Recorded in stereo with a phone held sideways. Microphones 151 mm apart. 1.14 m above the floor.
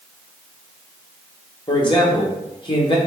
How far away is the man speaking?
About 1.2 m.